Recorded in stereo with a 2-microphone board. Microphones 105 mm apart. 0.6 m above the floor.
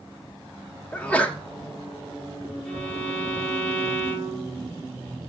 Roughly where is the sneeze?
Centre.